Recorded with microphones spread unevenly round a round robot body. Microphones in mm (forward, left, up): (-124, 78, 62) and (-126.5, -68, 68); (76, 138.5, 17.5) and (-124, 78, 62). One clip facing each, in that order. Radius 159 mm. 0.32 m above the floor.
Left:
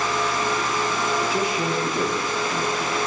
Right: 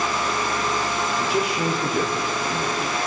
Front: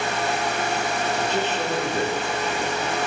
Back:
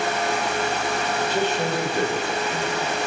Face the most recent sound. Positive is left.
turn(degrees=-55)